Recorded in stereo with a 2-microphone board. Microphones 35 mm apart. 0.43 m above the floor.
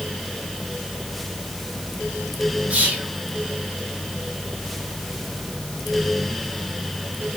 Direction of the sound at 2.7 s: 45° right (ahead or behind).